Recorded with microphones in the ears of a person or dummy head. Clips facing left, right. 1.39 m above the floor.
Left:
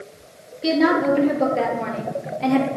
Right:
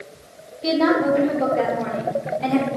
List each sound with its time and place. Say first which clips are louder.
0.6 s a woman speaking: even; 20° left (ahead or behind), 1.7 m